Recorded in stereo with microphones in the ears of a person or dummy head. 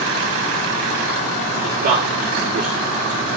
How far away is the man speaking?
About 4.5 m.